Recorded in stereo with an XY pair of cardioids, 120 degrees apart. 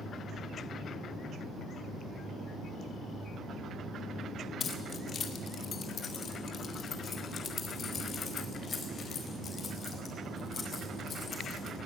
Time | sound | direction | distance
4.6 | keys jangling | 45° left | 2.0 m